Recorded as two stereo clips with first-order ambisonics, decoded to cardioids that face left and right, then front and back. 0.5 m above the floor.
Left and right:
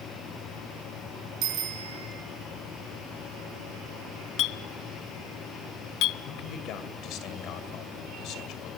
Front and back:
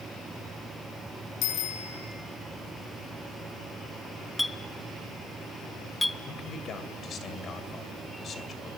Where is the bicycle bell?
40° right, 4 m.